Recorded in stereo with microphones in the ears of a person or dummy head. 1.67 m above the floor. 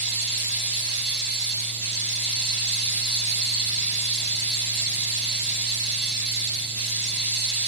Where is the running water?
30° right (ahead or behind), 1.6 m.